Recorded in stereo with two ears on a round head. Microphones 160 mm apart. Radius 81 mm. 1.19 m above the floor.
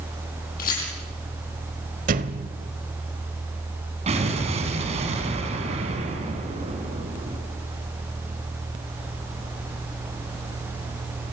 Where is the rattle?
50° left (ahead or behind), 9 m.